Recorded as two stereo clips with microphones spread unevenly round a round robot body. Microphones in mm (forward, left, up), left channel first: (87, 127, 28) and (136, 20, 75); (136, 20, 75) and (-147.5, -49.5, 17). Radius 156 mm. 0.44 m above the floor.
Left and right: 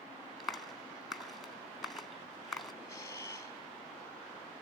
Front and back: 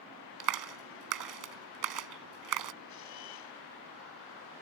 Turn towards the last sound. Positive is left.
turn(degrees=50)